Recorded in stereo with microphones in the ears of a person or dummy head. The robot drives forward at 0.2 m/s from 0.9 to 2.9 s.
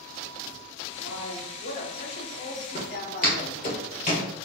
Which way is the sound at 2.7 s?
25° left (ahead or behind).